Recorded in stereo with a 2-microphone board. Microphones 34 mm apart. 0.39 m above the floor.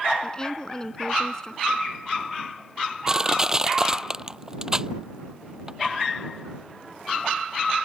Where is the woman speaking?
20° left (ahead or behind).